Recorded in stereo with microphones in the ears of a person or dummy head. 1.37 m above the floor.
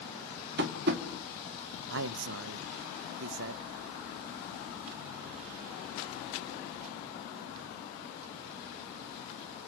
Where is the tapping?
60° right (ahead or behind), 2.5 m.